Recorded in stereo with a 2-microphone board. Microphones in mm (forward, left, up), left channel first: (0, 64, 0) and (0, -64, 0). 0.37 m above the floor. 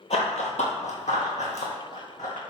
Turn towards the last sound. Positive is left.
turn(degrees=60)  # may be behind; listen again after turning